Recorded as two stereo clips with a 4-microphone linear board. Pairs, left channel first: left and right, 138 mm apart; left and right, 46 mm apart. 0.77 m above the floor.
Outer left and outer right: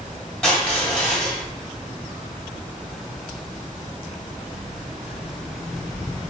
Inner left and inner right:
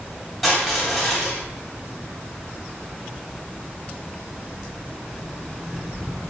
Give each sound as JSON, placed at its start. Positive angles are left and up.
{"t": 0.4, "sound": "crushing", "side_deg": 5, "distance_m": 1.8}